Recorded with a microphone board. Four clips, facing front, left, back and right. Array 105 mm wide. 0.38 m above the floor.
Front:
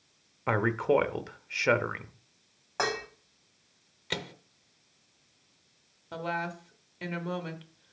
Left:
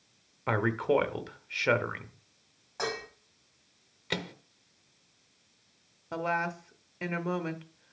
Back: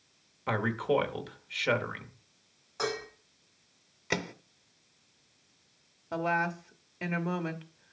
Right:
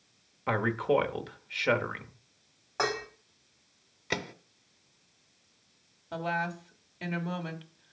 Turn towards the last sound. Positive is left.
turn(degrees=130)